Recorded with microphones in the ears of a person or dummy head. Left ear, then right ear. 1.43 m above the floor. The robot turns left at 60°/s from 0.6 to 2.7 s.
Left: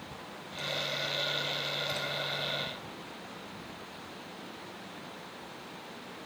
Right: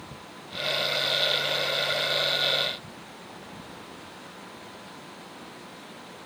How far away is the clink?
No clink in this recording.